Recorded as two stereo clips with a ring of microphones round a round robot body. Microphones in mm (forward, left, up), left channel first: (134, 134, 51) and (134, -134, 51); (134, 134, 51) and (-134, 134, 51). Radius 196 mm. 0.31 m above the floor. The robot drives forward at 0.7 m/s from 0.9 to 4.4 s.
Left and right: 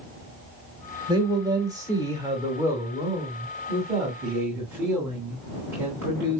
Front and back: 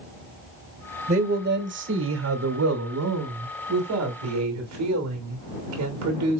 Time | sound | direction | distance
1.1 | a man speaking | 150° right | 1.2 m